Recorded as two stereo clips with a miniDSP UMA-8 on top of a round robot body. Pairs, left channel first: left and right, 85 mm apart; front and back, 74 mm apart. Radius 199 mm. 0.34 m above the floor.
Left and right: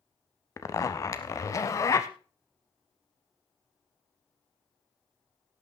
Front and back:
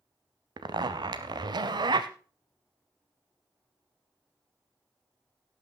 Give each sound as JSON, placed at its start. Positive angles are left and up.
{"t": 0.6, "sound": "a zipper", "azimuth_deg": 145, "distance_m": 0.5}